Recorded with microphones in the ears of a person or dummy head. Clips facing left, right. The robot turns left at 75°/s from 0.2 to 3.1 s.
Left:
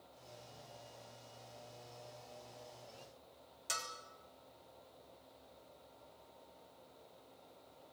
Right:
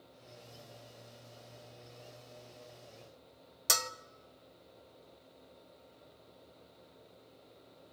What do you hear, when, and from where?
3.7 s a bell: 70° right (ahead or behind), 0.9 m